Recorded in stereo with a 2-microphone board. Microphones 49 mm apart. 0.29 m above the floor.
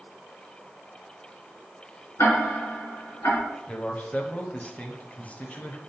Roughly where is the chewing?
No chewing in this recording.